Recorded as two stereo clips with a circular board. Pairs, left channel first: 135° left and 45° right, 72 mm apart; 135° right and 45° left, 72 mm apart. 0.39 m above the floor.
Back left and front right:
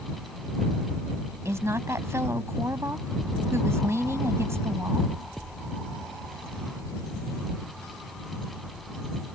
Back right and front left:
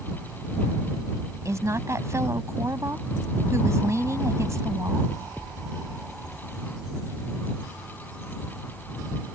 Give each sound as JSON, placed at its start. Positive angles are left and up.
{"t": 1.4, "sound": "a woman speaking", "azimuth_deg": 0}